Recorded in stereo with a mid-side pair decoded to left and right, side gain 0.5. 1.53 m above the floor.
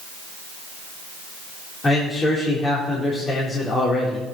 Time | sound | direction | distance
1.8 | a man speaking | 35° left | 3.5 m